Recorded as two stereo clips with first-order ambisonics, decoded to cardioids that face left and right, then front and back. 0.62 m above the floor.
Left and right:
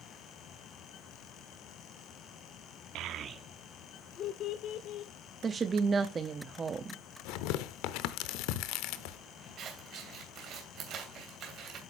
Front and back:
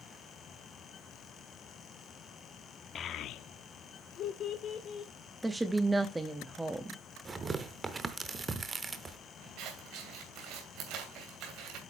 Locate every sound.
3.0 s a child speaking: 60° right, 0.6 m; by 5.1 s 60° left, 1.4 m
5.4 s a woman speaking: 115° right, 0.6 m
7.2 s tearing paper: 105° left, 0.7 m
9.6 s scissors: 145° right, 2.5 m